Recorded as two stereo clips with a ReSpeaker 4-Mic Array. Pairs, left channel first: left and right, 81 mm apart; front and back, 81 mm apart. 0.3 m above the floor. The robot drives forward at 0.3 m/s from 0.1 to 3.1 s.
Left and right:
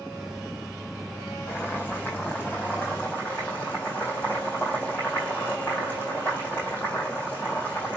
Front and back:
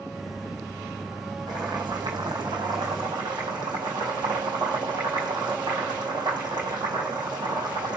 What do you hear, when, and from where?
1.5 s boiling: 155° left, 3.5 m; by 8.0 s 160° left, 4 m